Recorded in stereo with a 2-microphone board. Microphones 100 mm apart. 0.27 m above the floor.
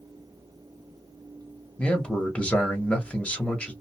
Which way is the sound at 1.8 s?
10° left (ahead or behind).